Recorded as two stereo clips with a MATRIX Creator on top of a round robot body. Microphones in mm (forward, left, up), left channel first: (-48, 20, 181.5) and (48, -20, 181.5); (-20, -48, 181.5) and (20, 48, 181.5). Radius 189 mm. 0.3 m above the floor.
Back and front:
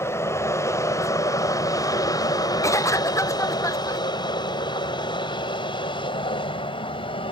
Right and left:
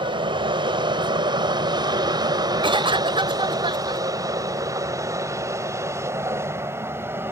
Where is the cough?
100° left.